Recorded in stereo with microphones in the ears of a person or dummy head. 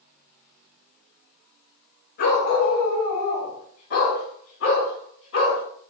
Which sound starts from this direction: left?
A dog barking, at 2.2 s.